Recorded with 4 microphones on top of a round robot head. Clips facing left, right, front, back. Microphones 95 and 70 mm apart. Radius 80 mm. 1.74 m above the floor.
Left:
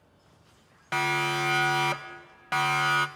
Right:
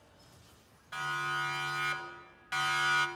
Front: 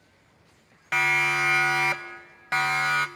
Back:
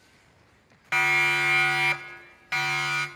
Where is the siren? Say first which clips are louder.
Left 8 dB, even; 90° left, 2 m; by 3.1 s 50° left, 2 m.